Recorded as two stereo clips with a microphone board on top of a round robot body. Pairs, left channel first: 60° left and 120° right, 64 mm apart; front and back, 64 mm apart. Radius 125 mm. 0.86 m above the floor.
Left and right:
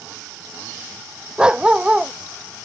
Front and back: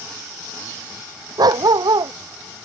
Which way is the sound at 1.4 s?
165° left.